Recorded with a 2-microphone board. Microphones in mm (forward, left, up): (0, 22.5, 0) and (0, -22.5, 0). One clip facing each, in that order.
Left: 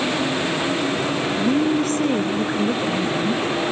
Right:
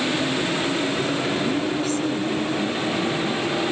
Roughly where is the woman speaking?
Left.